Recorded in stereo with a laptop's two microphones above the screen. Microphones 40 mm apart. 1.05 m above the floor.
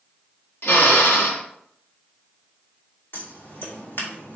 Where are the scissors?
75° left (ahead or behind), 2.5 m.